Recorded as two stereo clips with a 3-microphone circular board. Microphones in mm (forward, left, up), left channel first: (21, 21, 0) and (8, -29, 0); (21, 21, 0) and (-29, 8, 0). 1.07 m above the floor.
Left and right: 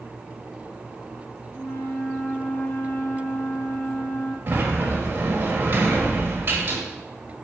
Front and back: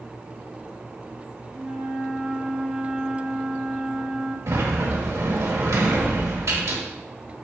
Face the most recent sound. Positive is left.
turn(degrees=-155)